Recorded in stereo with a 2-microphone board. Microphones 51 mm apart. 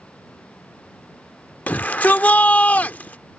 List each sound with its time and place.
1.7 s a shout: 30° left (ahead or behind)